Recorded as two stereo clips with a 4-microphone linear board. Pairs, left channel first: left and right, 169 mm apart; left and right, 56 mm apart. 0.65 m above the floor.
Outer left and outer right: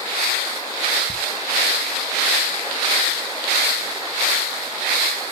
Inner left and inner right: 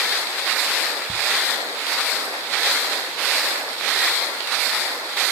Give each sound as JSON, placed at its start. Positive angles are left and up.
{"t": 1.1, "sound": "ticking", "side_deg": 65, "distance_m": 2.5}